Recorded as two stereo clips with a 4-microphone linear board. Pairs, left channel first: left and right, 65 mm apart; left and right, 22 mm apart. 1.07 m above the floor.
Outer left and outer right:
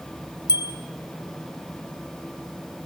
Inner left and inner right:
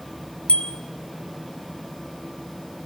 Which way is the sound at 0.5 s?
80° left.